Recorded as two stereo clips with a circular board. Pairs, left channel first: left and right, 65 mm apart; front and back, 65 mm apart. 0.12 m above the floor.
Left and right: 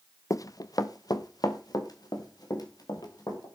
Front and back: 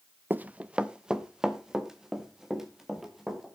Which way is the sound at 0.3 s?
120° left.